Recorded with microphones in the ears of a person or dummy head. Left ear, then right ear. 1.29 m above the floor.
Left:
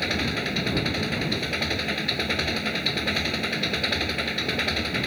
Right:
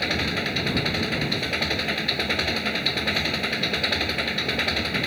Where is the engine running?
10° right (ahead or behind).